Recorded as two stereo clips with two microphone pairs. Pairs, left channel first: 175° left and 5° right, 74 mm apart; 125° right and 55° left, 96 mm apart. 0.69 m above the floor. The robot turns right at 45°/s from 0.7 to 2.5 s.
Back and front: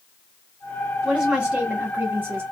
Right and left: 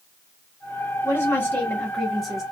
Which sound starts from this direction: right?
A woman speaking, at 1.0 s.